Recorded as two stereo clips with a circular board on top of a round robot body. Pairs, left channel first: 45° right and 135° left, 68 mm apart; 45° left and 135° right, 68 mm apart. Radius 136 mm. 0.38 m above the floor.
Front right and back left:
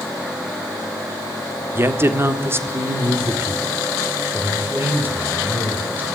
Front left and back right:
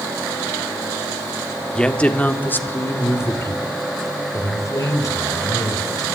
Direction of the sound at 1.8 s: 115° left.